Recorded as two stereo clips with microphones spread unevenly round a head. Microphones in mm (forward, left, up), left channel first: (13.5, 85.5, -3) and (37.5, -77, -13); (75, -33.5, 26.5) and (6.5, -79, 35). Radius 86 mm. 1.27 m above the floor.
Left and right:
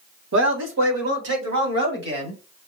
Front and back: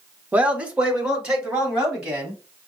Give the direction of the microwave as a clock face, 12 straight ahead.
I don't hear a microwave.